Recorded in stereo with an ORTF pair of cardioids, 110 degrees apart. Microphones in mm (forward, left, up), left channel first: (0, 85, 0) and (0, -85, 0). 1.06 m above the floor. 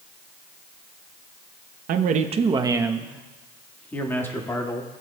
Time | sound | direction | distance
1.9 | a man speaking | 65° right | 0.9 m